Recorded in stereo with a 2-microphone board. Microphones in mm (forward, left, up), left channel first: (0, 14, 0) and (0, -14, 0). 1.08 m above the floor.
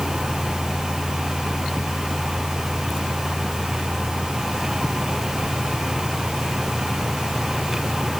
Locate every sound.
Only background noise.